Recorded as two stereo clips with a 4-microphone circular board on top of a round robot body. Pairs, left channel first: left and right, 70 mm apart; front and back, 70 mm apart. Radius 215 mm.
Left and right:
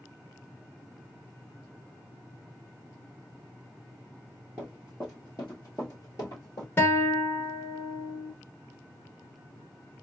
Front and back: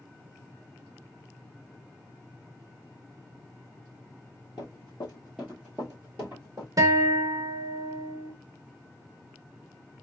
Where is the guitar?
145° left, 1.0 m.